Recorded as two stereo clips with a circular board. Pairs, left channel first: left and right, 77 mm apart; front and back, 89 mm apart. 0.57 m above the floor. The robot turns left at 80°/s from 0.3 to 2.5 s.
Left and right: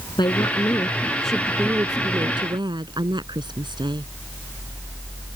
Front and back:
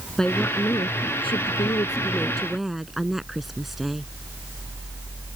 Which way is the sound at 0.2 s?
80° left.